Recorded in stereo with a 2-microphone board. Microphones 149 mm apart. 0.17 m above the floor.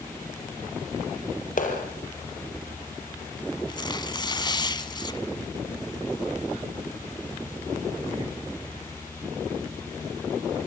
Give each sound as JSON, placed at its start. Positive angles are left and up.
{"t": 1.6, "sound": "a clap", "side_deg": 65, "distance_m": 3.5}
{"t": 3.7, "sound": "tearing paper", "side_deg": 30, "distance_m": 1.1}